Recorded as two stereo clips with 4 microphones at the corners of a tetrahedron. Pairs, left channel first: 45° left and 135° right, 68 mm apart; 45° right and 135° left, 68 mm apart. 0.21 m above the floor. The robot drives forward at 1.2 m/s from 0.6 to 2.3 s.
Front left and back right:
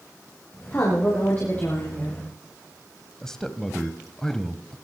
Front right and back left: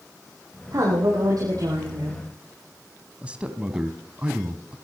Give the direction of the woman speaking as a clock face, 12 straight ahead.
9 o'clock.